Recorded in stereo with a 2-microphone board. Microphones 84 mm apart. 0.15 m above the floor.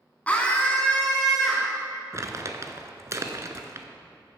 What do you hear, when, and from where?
0.3 s a scream: 20° left (ahead or behind), 1.2 m; by 1.7 s centre (ahead or behind), 1.9 m
2.1 s crumpling: 40° right (ahead or behind), 0.9 m